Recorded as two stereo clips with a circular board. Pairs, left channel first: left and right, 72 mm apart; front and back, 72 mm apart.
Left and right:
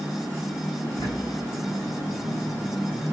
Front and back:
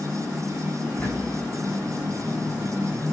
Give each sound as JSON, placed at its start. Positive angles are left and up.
{"t": 0.8, "sound": "a bird", "azimuth_deg": 75, "distance_m": 6.0}